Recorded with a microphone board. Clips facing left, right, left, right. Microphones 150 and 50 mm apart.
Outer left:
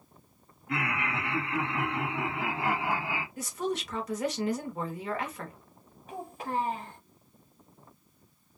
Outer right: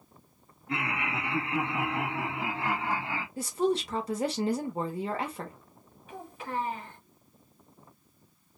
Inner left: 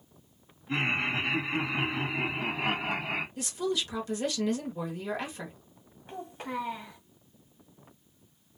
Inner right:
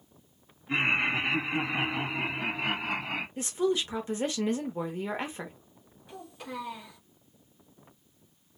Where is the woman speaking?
30° right (ahead or behind), 0.9 m.